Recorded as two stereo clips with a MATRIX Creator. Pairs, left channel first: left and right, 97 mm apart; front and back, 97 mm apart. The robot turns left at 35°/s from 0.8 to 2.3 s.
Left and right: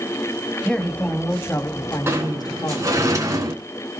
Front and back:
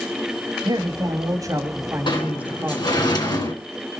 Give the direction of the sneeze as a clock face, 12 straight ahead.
No sneeze in this recording.